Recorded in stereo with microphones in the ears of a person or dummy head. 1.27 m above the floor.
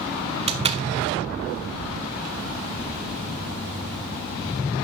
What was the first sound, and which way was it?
A door slam, 30° right (ahead or behind).